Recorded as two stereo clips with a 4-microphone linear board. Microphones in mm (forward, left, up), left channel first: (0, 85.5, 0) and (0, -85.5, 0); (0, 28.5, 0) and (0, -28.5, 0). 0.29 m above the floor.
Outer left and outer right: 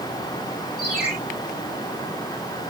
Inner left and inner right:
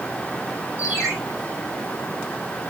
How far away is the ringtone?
About 7 m.